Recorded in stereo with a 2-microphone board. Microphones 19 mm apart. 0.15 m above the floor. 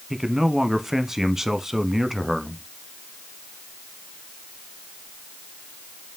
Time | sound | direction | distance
0.1 | a man speaking | 20° right (ahead or behind) | 1.1 m